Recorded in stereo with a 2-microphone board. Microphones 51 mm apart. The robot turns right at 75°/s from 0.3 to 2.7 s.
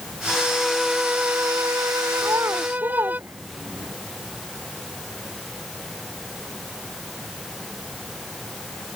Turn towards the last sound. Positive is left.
turn(degrees=-55)  # may be behind; listen again after turning